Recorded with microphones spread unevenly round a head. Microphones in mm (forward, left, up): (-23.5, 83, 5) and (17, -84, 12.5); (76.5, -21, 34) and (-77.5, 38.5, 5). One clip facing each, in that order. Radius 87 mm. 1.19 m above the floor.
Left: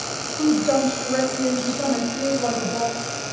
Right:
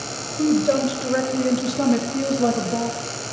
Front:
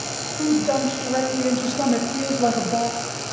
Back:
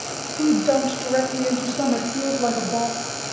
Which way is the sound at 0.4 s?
135° right.